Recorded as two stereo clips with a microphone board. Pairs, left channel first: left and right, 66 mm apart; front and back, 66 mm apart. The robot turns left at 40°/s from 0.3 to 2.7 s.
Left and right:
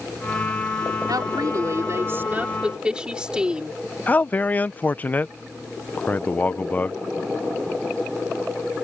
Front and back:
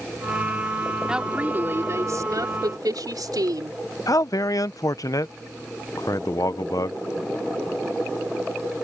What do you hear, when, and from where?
1.1 s a woman speaking: 100° right; by 3.8 s 165° right
4.1 s a man speaking: 25° left